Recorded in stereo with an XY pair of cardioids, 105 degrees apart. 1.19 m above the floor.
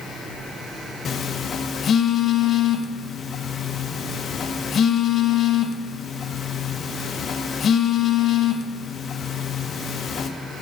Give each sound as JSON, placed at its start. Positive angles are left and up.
{"t": 1.1, "sound": "a phone buzzing", "azimuth_deg": 50, "distance_m": 0.6}